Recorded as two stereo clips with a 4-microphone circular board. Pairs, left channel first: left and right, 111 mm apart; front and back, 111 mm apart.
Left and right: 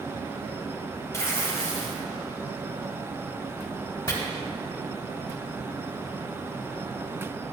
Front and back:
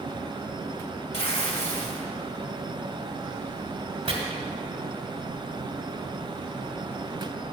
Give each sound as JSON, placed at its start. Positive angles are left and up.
{"t": 1.1, "sound": "tearing paper", "azimuth_deg": 25, "distance_m": 2.0}
{"t": 4.1, "sound": "chopping", "azimuth_deg": 150, "distance_m": 1.9}